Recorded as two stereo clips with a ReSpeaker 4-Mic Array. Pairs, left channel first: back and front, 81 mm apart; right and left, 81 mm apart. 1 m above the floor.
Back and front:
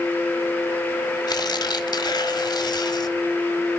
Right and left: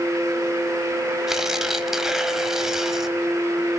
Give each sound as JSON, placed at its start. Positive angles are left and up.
{"t": 1.3, "sound": "tearing paper", "azimuth_deg": 175, "distance_m": 1.3}